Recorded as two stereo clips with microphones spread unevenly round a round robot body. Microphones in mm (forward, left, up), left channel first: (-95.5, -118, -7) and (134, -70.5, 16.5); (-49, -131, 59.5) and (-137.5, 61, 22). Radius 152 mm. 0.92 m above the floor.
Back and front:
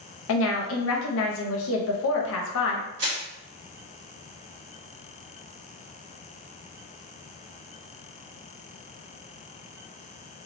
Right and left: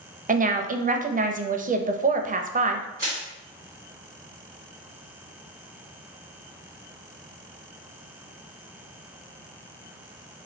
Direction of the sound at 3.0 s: 45° left.